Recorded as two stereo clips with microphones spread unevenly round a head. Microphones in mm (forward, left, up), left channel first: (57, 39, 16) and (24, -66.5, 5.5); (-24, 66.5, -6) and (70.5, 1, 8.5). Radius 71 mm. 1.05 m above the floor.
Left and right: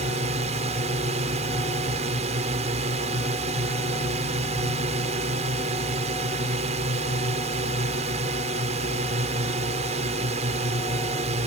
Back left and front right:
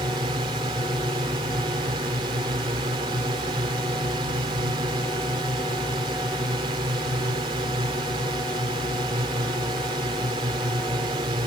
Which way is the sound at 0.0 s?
95° right.